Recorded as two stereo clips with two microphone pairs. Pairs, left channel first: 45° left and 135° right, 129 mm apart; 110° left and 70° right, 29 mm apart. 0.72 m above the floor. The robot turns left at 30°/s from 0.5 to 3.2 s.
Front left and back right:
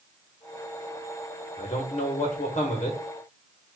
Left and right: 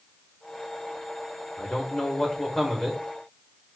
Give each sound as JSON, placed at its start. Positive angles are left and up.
{"t": 1.6, "sound": "a man speaking", "azimuth_deg": 70, "distance_m": 1.4}